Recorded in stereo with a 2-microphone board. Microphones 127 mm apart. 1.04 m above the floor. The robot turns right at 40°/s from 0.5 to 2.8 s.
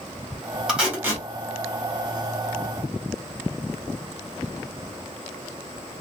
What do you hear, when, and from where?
0.7 s tape being pulled: 5° right (ahead or behind), 1.2 m; by 1.2 s 25° right (ahead or behind), 1.2 m